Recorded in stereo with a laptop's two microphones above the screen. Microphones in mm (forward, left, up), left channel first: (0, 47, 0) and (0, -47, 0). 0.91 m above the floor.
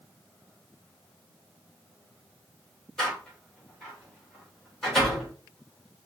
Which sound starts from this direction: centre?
A door slam, at 3.0 s.